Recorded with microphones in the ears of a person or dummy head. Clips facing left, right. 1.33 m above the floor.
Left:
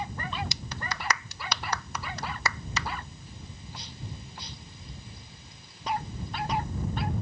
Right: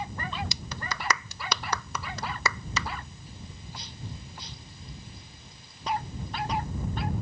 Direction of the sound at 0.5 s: 80° right.